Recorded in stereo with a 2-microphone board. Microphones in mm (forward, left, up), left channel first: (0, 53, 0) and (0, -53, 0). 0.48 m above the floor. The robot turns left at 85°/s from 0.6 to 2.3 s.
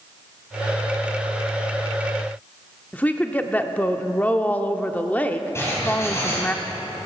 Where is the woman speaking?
15° left (ahead or behind), 0.7 m.